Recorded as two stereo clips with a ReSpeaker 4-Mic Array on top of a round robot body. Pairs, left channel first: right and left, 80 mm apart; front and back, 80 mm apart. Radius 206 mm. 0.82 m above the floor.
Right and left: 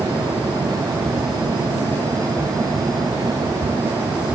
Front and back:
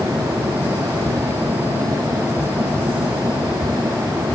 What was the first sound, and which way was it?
Only background noise.